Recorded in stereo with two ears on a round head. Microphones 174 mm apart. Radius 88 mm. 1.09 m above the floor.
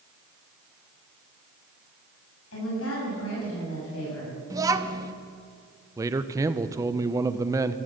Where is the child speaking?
20° right (ahead or behind), 1.0 m.